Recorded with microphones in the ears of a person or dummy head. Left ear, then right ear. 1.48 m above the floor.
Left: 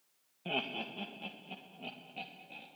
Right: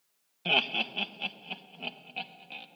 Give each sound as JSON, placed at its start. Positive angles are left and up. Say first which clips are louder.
{"t": 0.5, "sound": "laughter", "louder": "right 10 dB", "side_deg": -70, "distance_m": 1.0}